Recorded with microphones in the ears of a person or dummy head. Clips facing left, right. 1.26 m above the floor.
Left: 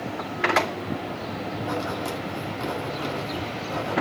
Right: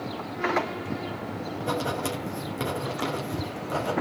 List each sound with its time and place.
1.6 s writing: 65° right (ahead or behind), 5.5 m